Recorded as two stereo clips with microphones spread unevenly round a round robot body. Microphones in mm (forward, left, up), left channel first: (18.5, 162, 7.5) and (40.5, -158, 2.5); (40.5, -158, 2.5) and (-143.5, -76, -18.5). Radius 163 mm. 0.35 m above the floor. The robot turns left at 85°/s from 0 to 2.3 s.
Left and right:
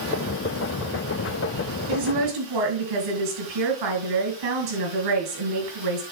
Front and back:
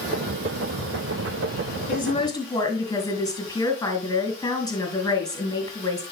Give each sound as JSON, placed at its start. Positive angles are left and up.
{"t": 1.9, "sound": "a woman speaking", "azimuth_deg": -60, "distance_m": 4.5}